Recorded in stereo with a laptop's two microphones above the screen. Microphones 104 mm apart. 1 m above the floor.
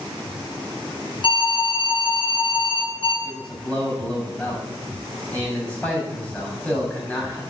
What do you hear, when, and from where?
1.2 s an alarm: 50° left (ahead or behind), 4 m
3.2 s a man speaking: 15° left (ahead or behind), 6.5 m